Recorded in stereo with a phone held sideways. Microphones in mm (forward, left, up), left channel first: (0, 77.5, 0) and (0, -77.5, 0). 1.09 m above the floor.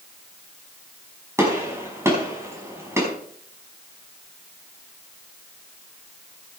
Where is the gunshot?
20° right (ahead or behind), 5 m.